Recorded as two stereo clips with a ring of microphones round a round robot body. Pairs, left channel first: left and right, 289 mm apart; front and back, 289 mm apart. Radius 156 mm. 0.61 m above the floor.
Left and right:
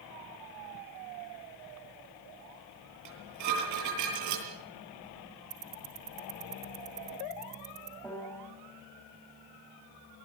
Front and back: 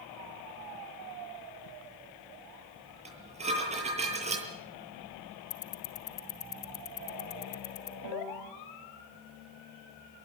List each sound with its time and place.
3.0 s dishes clattering: 110° right, 9.5 m
5.5 s ticking: 20° right, 1.8 m
8.0 s a piano: 170° left, 4 m